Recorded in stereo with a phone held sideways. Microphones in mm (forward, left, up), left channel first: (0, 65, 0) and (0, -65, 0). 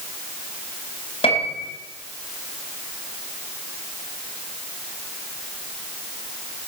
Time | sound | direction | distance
1.2 | a piano | 50° left (ahead or behind) | 3 m